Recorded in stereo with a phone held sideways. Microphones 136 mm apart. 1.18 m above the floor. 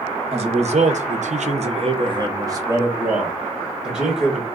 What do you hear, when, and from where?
0.3 s a man speaking: 50° right (ahead or behind), 0.8 m; by 4.5 s 5° right (ahead or behind), 1.6 m